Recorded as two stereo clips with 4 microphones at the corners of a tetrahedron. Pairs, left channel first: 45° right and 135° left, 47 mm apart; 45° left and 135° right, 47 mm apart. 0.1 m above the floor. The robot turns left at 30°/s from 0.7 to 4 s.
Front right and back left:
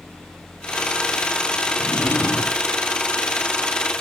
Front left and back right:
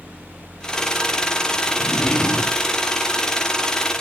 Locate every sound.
1.8 s a drawer: 10° right, 1.0 m; by 2.6 s 40° right, 1.0 m